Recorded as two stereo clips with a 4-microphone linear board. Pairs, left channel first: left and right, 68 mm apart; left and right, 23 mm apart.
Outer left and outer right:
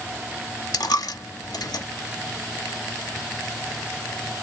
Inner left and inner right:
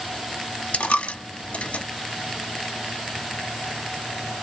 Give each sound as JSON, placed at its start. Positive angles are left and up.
{"t": 0.7, "sound": "a dropped coin", "side_deg": 70, "distance_m": 0.7}